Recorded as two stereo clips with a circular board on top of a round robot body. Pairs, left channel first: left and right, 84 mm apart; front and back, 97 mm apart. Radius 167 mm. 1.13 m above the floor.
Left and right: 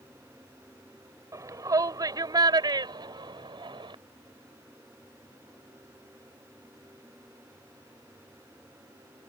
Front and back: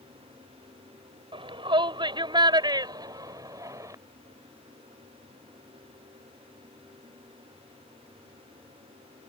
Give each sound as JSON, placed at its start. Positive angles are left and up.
{"t": 1.3, "sound": "a shout", "azimuth_deg": -140}